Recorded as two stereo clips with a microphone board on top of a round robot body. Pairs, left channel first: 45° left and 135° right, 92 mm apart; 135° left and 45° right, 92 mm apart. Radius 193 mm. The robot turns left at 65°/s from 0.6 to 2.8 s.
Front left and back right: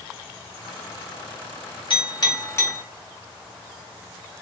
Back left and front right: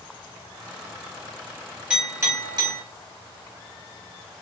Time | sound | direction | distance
1.9 | a clink | 35° left | 1.5 m